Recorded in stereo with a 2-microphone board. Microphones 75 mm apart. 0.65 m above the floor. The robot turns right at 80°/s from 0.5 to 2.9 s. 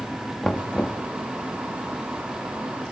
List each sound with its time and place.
0.4 s knocking: 5° left (ahead or behind), 0.7 m; by 1.0 s 20° left (ahead or behind), 0.7 m